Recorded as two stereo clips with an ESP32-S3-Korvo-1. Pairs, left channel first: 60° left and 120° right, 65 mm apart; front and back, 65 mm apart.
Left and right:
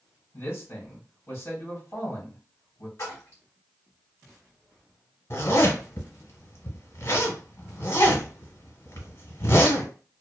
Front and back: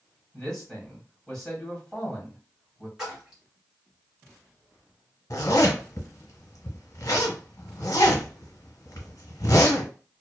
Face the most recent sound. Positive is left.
turn(degrees=25)